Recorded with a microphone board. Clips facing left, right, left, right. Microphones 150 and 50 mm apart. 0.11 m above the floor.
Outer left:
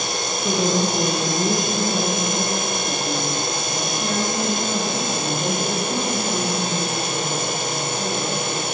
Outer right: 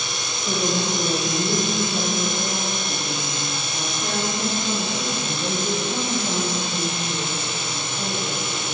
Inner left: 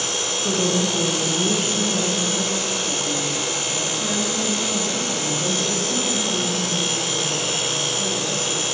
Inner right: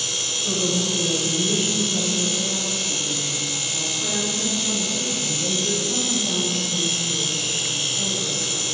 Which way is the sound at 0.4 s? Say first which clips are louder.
Outer left 3 dB, inner left 3 dB; 45° left (ahead or behind).